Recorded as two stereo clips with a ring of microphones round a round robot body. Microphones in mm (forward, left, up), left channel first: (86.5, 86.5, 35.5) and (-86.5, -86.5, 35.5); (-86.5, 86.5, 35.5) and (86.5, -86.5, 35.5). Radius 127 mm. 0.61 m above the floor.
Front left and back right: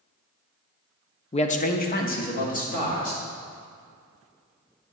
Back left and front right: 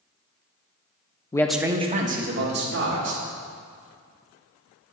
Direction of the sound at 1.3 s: 80° left.